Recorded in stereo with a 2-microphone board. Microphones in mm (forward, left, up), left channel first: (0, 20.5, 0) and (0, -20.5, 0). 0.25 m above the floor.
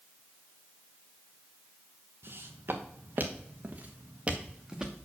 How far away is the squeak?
No squeak in this recording.